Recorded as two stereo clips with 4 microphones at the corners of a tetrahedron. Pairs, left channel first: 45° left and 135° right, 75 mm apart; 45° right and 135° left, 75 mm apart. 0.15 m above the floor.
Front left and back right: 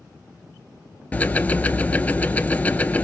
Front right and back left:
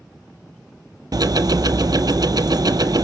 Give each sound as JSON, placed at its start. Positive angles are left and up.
{"t": 1.1, "sound": "ticking", "azimuth_deg": 115, "distance_m": 0.5}